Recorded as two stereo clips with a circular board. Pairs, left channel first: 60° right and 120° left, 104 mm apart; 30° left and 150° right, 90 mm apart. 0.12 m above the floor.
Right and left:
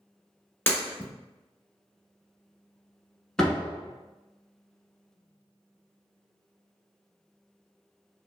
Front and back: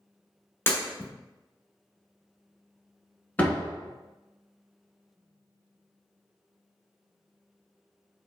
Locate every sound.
0.7 s breaking glass: 10° right, 0.9 m
3.4 s a door slam: 10° left, 0.8 m